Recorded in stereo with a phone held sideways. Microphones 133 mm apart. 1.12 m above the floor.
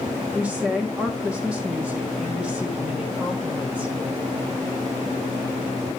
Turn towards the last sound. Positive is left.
turn(degrees=-5)  # may be behind; listen again after turning